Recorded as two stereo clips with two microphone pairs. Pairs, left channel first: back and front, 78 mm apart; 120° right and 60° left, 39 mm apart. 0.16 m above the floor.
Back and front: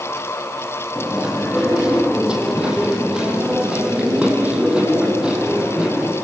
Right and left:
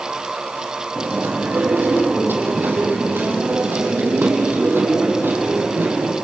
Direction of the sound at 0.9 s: 75° left.